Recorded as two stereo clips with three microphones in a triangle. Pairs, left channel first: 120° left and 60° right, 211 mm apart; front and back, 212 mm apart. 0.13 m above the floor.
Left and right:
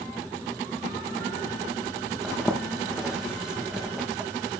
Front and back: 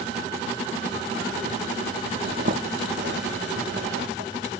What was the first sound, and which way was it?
A zipper, 145° right.